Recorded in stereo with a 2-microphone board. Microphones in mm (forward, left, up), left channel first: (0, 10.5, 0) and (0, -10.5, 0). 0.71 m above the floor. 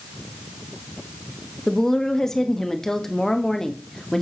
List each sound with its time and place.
1.7 s a woman speaking: 20° left (ahead or behind), 1.0 m